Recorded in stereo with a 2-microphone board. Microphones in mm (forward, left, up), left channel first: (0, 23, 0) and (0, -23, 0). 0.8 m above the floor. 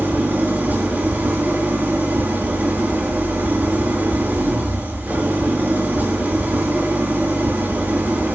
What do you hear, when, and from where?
0.0 s an engine running: 40° right (ahead or behind), 5 m